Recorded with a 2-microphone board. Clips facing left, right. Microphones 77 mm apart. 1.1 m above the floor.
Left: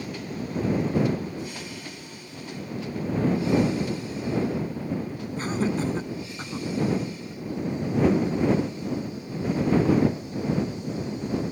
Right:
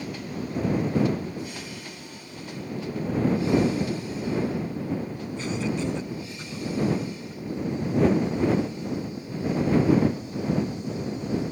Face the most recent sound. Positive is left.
turn(degrees=40)  # may be behind; listen again after turning